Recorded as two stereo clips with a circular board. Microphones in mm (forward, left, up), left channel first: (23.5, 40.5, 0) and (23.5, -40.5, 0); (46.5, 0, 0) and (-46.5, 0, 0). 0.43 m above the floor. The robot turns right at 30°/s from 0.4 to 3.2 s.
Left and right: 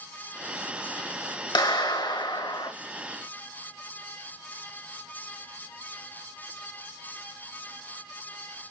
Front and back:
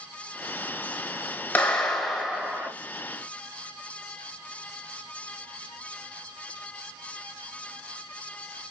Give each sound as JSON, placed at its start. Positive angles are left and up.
{"t": 1.6, "sound": "a clap", "azimuth_deg": 70, "distance_m": 1.1}